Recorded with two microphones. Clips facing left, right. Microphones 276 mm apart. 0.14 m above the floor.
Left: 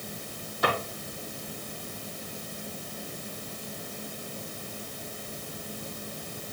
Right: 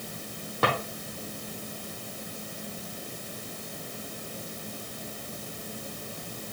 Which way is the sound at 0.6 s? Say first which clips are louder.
Right 1 dB; 65° right (ahead or behind).